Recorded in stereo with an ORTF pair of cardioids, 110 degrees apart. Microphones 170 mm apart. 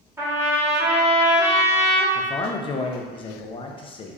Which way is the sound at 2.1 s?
30° left.